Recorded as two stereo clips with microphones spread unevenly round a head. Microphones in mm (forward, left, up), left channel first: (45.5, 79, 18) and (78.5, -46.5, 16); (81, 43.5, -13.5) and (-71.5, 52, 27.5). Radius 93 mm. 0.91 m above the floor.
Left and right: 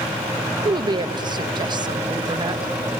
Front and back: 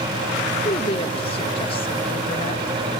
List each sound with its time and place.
0.7 s a woman speaking: 30° right, 1.0 m